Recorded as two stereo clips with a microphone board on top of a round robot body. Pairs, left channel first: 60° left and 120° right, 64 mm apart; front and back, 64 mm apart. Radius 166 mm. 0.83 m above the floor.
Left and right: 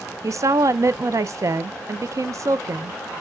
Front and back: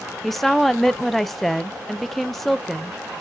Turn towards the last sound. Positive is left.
turn(degrees=-90)